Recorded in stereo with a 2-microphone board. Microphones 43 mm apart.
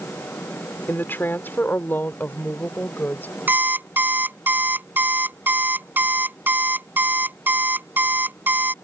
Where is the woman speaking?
55° left (ahead or behind); by 3.3 s 45° left (ahead or behind).